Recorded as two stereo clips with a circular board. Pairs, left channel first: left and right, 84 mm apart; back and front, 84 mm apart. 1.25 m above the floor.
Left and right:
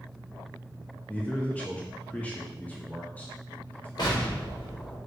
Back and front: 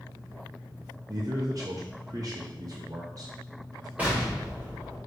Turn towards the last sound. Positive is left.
turn(degrees=70)